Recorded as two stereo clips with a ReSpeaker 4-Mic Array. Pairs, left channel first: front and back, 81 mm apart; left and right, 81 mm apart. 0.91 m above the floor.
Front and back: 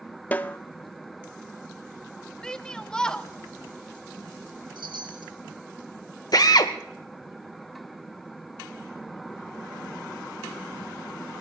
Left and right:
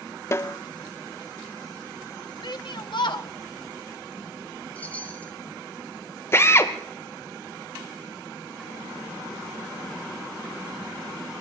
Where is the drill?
35° left, 1.2 m.